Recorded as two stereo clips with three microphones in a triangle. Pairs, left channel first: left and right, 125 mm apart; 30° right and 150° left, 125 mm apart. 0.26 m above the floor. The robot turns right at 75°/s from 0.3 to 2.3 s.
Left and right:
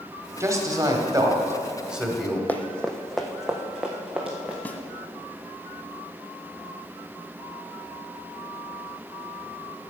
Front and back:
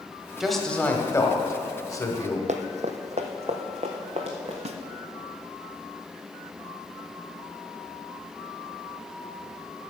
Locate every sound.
0.4 s a man speaking: 130° right, 1.3 m; by 2.4 s 15° left, 1.3 m
2.5 s running footsteps: 165° left, 0.7 m; by 4.5 s 170° right, 1.9 m
4.7 s a snare drum: 165° left, 0.7 m